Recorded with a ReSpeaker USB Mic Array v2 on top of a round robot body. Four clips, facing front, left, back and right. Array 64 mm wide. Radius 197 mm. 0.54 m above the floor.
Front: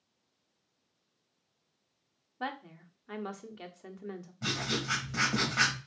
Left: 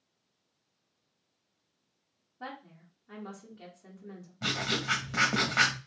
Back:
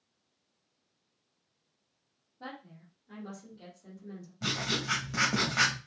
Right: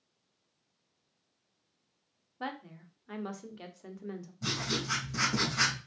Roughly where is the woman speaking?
Ahead right.